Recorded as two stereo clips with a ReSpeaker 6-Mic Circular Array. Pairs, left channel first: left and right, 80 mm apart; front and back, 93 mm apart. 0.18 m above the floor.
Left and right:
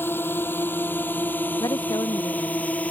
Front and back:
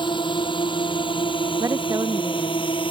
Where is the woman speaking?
125° left.